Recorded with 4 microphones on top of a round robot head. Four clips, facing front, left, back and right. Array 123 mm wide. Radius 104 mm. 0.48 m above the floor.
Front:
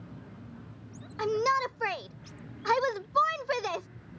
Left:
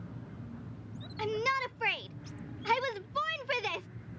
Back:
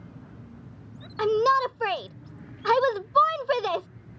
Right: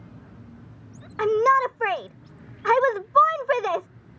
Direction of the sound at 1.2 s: 115° right.